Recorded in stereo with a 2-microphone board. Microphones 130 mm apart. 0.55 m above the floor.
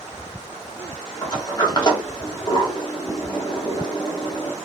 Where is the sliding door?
30° left (ahead or behind), 1.1 m.